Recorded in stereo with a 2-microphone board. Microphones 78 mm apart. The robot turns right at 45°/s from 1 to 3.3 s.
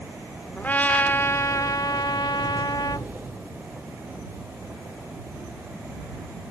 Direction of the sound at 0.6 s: 25° left.